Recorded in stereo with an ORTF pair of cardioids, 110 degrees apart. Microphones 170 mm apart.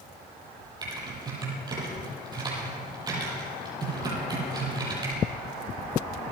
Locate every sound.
0.8 s typing on a keyboard: 25° right, 9.5 m